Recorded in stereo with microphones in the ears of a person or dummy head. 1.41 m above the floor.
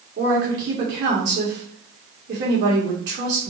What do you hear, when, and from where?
0.2 s a woman speaking: 60° right (ahead or behind), 1.9 m